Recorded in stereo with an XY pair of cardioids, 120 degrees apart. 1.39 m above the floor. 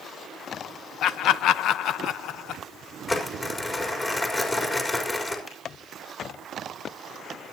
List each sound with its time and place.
1.0 s laughter: 70° left, 0.5 m
3.1 s crumpling: 25° left, 4 m
5.5 s a finger snap: 30° left, 6 m